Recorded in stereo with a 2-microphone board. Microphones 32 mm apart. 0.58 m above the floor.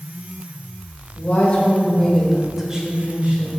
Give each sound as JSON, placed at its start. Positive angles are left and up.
{"t": 1.1, "sound": "a woman speaking", "side_deg": 50, "distance_m": 1.8}